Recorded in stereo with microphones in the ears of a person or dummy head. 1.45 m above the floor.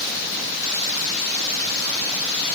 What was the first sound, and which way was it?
Only background noise.